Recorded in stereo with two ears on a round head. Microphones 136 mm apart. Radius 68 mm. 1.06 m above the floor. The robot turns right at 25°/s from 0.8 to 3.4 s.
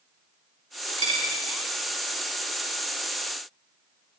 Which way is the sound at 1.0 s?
40° right (ahead or behind).